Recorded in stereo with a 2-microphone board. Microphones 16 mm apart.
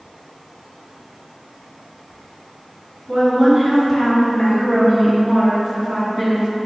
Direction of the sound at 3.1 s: 35° right (ahead or behind).